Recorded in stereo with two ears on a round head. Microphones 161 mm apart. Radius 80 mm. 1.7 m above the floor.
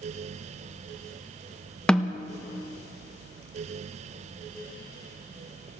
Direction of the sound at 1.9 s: 5° left (ahead or behind).